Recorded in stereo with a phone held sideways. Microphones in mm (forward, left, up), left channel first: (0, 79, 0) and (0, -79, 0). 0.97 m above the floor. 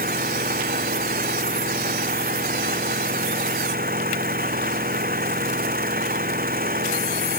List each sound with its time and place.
0.0 s an engine running: 65° right (ahead or behind)